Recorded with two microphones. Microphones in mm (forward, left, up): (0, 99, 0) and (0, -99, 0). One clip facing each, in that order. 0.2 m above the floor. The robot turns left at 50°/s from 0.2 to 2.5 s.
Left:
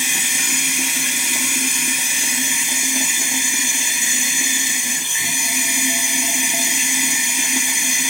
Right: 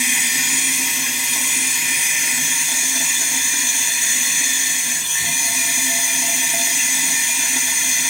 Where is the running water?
135° left, 0.8 m; by 8.1 s 20° left, 0.8 m.